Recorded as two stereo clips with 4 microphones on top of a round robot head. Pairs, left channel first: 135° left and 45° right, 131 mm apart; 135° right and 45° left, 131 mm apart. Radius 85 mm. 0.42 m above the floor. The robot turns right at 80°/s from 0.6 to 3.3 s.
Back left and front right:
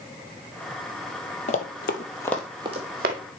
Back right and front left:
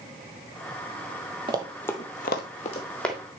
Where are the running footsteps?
95° left, 0.8 m; by 3.2 s 40° right, 1.1 m.